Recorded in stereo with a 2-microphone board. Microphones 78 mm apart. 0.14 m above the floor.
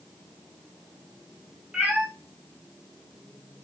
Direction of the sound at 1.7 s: 10° right (ahead or behind).